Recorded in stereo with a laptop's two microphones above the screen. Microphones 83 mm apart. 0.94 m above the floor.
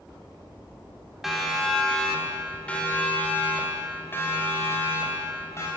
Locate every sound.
1.2 s a siren: centre (ahead or behind), 2.5 m; by 5.7 s 35° left (ahead or behind), 5 m